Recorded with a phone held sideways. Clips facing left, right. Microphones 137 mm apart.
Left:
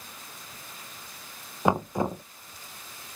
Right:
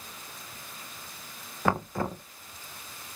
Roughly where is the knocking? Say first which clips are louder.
Left 3 dB; centre.